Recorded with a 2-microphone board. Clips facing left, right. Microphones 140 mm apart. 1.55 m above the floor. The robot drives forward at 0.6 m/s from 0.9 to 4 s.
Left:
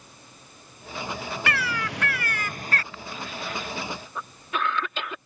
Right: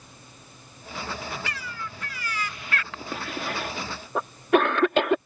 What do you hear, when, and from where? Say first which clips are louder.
1.5 s a bird: left 8 dB; 60° left (ahead or behind); by 2.8 s 35° left (ahead or behind)
2.9 s a cough: right 3 dB; 70° right (ahead or behind); by 5.2 s 60° right (ahead or behind)